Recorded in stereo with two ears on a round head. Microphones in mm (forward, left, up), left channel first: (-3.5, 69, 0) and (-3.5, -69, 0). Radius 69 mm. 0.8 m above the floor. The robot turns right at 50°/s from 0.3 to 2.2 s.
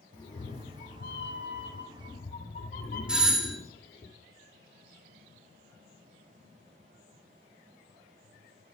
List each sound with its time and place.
0.1 s a cat meowing: 30° left, 1.3 m; by 4.1 s 125° left, 1.3 m
3.1 s a doorbell: 5° right (ahead or behind), 1.4 m